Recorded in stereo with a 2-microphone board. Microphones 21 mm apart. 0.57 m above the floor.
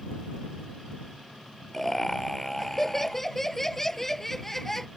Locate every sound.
1.7 s laughter: 15° left (ahead or behind)